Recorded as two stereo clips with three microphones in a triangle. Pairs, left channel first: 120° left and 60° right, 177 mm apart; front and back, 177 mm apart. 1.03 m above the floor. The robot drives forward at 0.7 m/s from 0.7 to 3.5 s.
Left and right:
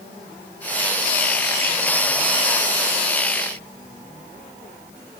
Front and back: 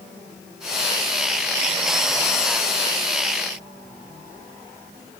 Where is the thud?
I don't hear a thud.